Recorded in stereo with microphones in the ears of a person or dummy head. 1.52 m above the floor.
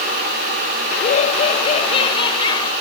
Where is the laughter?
40° left (ahead or behind); by 2.7 s 25° left (ahead or behind).